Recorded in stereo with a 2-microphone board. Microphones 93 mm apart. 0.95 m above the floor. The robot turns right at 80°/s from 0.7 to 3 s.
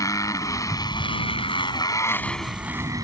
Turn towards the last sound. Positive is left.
turn(degrees=-135)